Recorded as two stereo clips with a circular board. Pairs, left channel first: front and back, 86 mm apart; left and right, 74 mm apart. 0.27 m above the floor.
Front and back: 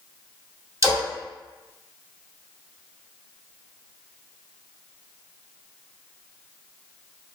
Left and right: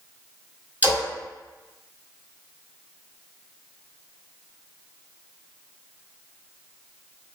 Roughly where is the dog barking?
No dog barking in this recording.